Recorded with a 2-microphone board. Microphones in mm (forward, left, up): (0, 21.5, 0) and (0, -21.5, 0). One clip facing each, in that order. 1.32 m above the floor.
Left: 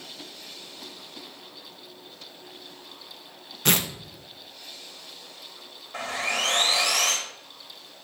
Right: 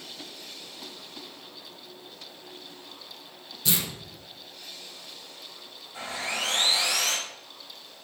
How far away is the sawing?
About 2.5 m.